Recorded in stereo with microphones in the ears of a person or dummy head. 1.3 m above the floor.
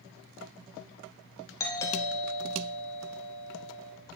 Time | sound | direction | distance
1.6 | a doorbell | 15° left (ahead or behind) | 1.5 m